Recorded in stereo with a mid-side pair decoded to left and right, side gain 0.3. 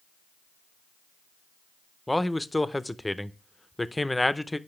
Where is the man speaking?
15° left, 0.6 m.